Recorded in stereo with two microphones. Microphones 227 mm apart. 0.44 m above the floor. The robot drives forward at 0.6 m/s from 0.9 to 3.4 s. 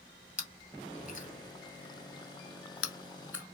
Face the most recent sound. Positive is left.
turn(degrees=80)